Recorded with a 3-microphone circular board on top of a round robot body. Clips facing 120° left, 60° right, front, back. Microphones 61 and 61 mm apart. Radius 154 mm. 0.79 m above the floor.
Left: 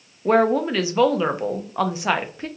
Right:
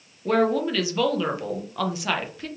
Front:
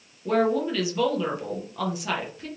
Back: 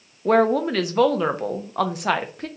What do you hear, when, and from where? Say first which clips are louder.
0.2 s a woman speaking: left 4 dB, back 5 dB; 175° left, 0.6 m